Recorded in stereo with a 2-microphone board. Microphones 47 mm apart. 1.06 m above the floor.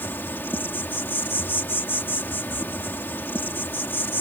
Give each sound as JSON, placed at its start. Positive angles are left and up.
{"t": 0.0, "sound": "an insect", "side_deg": 50}